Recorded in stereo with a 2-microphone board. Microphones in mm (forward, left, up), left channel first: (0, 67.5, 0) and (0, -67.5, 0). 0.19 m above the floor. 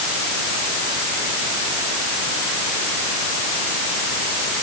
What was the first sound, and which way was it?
Only background noise.